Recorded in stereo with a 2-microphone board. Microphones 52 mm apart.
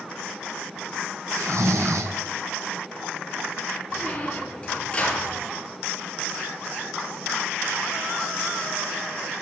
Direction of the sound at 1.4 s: 80° right.